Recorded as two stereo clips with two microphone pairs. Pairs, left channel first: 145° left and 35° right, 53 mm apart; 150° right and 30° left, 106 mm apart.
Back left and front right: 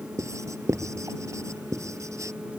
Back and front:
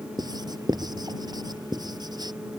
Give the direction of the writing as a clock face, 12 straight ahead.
1 o'clock.